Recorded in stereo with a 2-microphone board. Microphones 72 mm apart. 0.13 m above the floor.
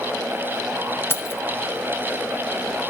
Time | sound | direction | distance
1.1 | keys jangling | 35° left (ahead or behind) | 1.1 m